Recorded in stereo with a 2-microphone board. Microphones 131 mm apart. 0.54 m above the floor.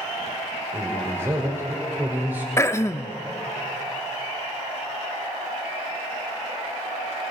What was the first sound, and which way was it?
A man speaking, 20° right (ahead or behind).